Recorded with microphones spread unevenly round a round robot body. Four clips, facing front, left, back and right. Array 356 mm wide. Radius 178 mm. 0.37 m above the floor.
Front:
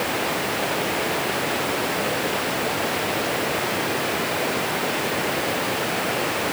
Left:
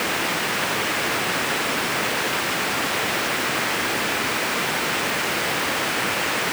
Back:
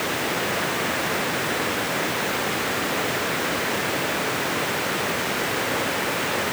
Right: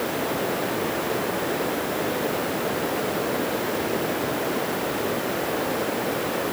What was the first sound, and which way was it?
Only background noise.